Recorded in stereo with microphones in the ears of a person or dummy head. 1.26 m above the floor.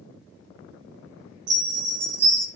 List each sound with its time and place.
1.5 s a chime: 70° right (ahead or behind), 2 m